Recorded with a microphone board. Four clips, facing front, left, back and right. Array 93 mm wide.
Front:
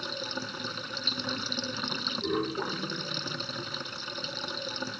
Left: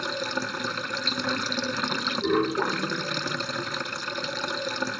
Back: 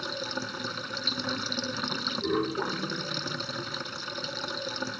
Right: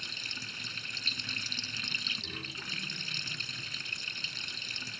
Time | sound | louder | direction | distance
0.0 | running water | left 15 dB, back 2 dB | 90° left | ?